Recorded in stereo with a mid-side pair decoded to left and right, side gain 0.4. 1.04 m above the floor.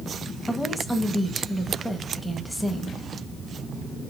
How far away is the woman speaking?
About 1.2 m.